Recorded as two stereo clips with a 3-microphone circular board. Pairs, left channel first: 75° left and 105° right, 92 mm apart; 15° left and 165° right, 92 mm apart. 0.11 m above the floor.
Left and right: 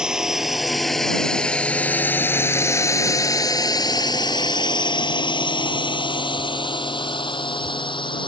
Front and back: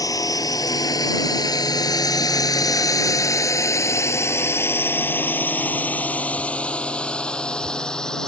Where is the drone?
25° right; by 8.3 s 95° left.